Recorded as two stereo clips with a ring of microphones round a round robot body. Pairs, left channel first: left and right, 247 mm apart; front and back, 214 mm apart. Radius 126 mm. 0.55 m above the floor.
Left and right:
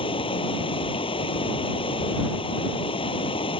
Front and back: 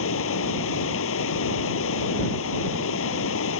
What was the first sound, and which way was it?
Running water, 20° left.